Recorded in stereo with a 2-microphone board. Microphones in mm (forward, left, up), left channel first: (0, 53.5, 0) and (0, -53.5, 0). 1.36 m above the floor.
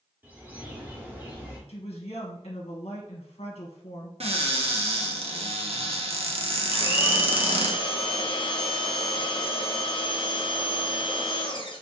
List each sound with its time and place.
0.2 s a bird: 15° right (ahead or behind), 1.0 m
1.7 s a woman speaking: 65° left (ahead or behind), 1.0 m
4.2 s a cupboard door: 65° right (ahead or behind), 0.7 m
6.7 s a blender: 50° left (ahead or behind), 0.7 m